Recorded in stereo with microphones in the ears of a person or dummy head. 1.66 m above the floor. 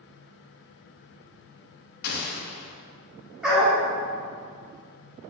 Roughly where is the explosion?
Left.